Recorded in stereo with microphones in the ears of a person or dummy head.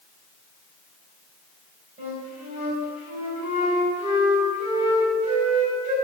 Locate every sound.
2.0 s a flute: 45° right (ahead or behind), 4 m